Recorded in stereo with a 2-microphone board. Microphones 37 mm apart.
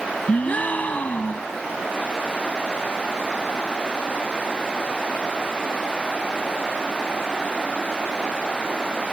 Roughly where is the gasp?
Left.